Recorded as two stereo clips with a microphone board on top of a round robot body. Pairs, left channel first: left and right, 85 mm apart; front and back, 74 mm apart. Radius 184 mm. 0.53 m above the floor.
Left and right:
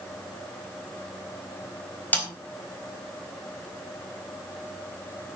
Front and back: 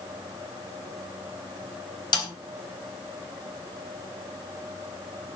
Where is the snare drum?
20° left, 4 m.